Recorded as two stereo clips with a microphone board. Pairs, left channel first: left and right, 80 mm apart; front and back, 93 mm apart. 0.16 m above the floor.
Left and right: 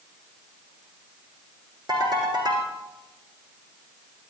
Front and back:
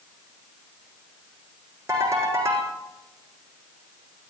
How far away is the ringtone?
About 5 m.